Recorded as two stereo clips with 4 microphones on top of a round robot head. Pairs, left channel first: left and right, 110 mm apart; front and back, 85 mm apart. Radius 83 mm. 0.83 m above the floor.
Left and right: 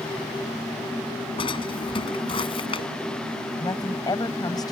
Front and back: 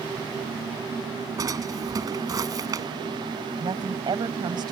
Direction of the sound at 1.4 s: 130° left.